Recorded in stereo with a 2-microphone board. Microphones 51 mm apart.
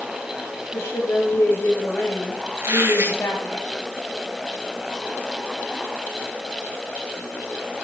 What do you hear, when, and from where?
0.7 s a woman speaking: 65° left (ahead or behind), 9.5 m
2.6 s a squeak: 60° right (ahead or behind), 5.5 m